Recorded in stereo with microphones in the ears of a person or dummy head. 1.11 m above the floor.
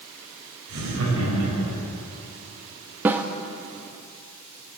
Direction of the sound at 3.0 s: 10° right (ahead or behind).